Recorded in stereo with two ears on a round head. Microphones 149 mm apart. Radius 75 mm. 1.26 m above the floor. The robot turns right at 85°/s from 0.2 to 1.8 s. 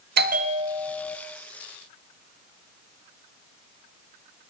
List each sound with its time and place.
0.2 s a bell: 65° right, 0.7 m; by 1.2 s 15° left, 0.7 m